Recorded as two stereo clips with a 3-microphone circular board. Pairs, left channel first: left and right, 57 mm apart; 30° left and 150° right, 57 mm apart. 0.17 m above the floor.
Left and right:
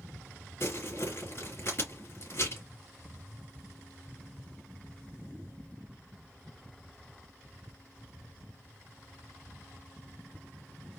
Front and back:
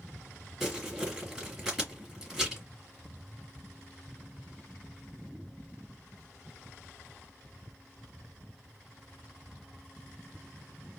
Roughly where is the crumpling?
Behind left.